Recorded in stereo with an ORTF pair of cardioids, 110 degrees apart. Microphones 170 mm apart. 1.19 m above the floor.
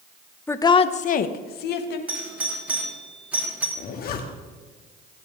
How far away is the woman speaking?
About 0.7 m.